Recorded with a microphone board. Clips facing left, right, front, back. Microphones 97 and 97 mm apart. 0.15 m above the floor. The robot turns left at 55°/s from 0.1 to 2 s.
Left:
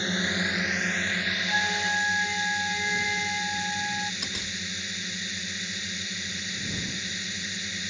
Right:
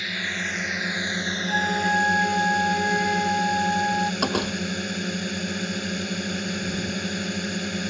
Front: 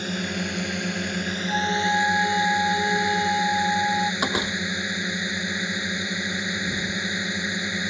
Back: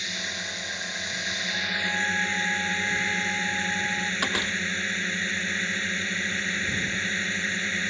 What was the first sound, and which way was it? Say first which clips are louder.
A drone: left 2 dB, front 8 dB; 35° left.